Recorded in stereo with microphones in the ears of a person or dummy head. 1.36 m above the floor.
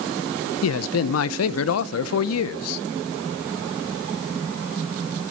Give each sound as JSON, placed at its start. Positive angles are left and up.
{"t": 0.6, "sound": "a man speaking", "side_deg": 85, "distance_m": 0.8}